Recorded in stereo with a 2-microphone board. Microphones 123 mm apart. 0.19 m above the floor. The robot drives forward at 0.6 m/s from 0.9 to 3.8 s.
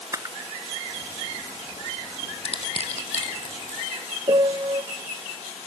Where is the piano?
40° right (ahead or behind), 0.6 m.